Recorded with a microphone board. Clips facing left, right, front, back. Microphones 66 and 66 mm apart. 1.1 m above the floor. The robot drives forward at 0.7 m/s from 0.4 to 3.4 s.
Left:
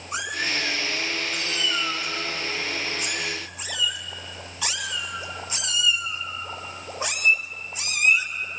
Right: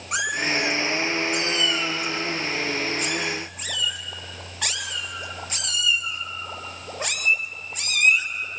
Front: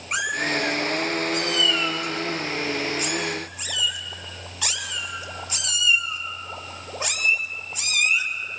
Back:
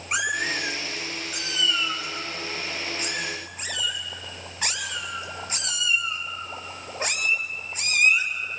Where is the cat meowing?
95° right, 3 m; by 8.3 s 130° right, 3.5 m.